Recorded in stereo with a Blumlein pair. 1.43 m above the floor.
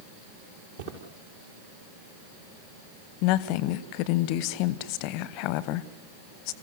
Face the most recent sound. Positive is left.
turn(degrees=45)